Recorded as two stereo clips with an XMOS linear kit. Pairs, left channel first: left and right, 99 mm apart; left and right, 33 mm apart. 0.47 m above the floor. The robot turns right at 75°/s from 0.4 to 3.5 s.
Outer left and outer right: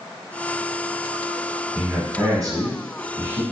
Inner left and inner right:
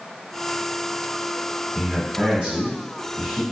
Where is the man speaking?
15° right (ahead or behind), 1.0 m; by 3.4 s 20° right (ahead or behind), 1.0 m.